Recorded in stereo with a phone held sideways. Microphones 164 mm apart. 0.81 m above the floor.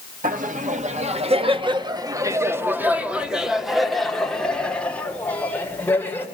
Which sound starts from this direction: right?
Laughter, at 0.2 s.